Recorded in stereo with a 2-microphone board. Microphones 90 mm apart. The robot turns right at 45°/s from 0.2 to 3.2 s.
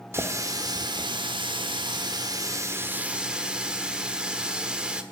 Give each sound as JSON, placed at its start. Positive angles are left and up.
{"t": 0.1, "sound": "a running tap", "azimuth_deg": -150, "distance_m": 1.1}